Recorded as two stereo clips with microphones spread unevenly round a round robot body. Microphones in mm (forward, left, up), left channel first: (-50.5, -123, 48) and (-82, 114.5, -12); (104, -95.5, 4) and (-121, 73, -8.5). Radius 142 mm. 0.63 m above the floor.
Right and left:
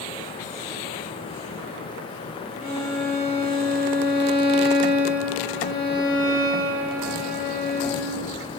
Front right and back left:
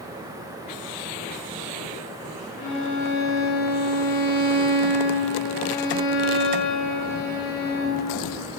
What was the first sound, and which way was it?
A violin, 25° right.